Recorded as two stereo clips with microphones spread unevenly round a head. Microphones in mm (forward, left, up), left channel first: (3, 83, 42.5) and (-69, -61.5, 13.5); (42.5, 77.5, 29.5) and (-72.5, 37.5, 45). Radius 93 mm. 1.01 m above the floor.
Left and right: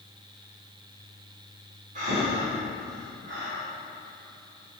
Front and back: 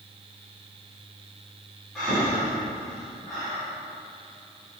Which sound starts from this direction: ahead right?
Breathing, at 1.9 s.